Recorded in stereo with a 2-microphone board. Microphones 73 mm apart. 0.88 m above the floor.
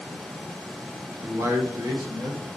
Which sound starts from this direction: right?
A man speaking, at 1.2 s.